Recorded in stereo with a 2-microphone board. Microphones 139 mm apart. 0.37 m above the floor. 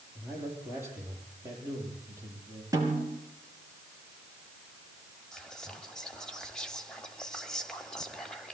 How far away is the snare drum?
About 4.5 m.